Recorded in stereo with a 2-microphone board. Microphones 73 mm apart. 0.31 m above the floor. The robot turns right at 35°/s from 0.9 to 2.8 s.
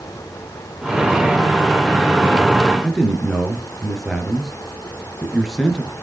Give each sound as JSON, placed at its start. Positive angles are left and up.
{"t": 2.8, "sound": "a man speaking", "side_deg": 0, "distance_m": 4.5}